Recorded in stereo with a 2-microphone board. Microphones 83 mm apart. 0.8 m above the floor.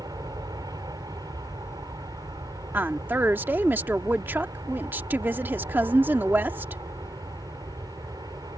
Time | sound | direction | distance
0.0 | an aircraft | 50° right (ahead or behind) | ?
2.7 | a woman speaking | 25° right (ahead or behind) | ?